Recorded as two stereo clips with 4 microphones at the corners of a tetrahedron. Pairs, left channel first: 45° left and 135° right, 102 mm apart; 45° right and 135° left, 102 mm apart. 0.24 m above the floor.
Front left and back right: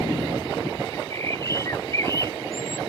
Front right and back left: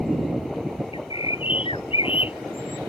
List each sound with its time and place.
0.9 s a bird: 15° right